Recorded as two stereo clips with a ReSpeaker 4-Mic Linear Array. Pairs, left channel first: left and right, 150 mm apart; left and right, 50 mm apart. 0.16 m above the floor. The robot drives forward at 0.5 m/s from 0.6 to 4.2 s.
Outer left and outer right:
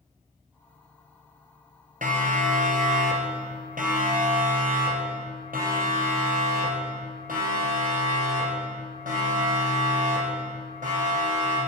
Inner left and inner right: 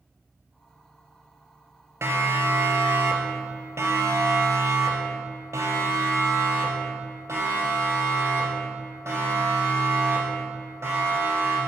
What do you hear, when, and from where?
2.0 s a siren: 65° right (ahead or behind), 2.5 m; by 11.6 s 60° right (ahead or behind), 7.5 m